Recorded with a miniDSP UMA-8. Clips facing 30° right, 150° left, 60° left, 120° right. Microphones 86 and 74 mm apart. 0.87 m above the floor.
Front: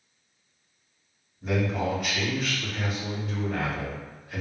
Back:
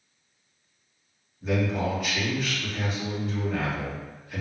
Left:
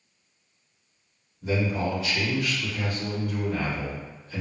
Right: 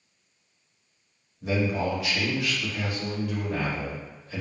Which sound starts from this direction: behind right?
A man speaking, at 1.4 s.